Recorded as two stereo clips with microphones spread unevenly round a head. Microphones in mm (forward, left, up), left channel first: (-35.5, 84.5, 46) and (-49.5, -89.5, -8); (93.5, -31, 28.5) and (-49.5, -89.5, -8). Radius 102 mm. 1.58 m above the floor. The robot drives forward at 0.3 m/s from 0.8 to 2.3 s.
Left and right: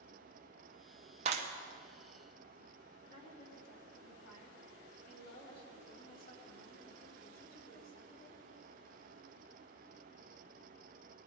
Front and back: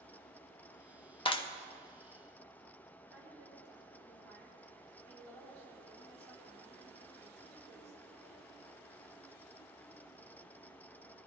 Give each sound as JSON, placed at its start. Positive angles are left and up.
{"t": 1.2, "sound": "a clap", "azimuth_deg": -35, "distance_m": 1.2}
{"t": 3.1, "sound": "a woman speaking", "azimuth_deg": 120, "distance_m": 4.0}